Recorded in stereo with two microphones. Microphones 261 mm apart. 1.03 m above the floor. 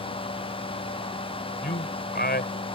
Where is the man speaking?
40° left (ahead or behind).